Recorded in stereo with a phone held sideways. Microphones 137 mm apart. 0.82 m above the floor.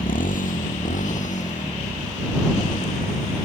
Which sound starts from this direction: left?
A motorcycle, at 0.0 s.